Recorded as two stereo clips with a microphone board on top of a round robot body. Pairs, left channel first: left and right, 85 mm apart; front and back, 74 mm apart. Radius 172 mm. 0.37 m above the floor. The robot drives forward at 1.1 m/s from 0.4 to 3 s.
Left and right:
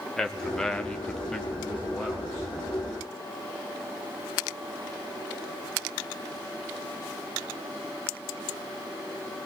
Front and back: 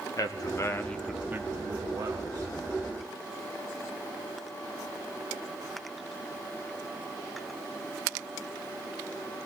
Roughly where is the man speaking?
Ahead.